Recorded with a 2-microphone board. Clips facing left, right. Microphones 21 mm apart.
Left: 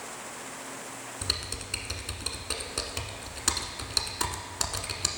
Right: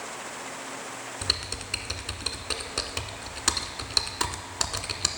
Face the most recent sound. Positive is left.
turn(degrees=-20)  # may be behind; listen again after turning